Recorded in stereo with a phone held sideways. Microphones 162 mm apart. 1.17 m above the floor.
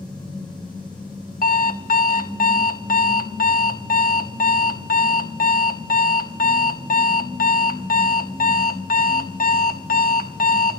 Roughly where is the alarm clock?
Left.